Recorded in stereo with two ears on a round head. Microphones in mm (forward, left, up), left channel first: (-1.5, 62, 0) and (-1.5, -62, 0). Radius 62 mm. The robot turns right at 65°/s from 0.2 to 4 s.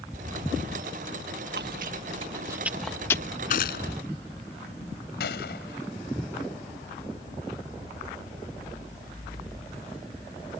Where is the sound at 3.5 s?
60° left (ahead or behind); by 3.9 s 90° left.